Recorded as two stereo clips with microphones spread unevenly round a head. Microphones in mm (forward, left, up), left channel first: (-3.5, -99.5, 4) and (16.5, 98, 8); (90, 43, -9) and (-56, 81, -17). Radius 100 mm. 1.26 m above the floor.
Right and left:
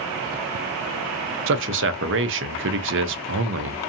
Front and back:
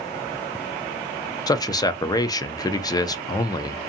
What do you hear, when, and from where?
1.5 s a man speaking: 55° left, 0.5 m